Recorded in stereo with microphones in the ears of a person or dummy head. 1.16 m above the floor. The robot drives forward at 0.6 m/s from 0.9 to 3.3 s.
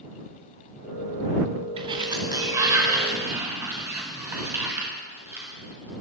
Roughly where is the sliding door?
Right.